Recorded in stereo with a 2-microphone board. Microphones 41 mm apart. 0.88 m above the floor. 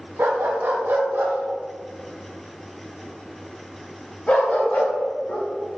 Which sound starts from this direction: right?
A dog barking, at 0.2 s.